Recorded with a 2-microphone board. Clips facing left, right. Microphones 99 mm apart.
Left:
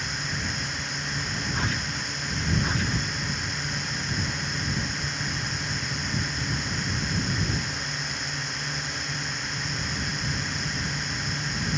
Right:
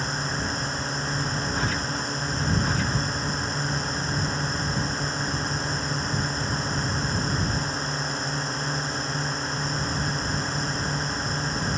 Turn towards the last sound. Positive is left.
turn(degrees=-35)  # may be behind; listen again after turning